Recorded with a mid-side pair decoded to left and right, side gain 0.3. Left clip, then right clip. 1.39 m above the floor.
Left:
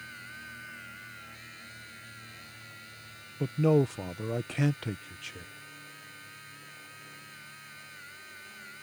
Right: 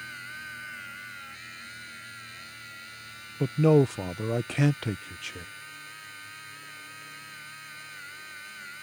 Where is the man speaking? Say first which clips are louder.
Right 4 dB; 50° right.